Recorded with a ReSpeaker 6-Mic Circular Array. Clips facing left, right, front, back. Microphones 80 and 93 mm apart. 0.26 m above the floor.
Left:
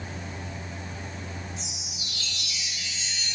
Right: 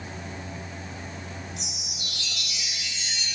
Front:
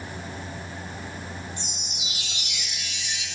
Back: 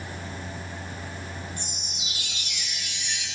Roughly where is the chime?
Right.